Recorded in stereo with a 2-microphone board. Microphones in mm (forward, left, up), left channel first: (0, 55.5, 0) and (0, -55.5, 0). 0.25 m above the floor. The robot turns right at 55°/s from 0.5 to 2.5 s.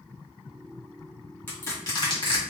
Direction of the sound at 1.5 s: 20° left (ahead or behind).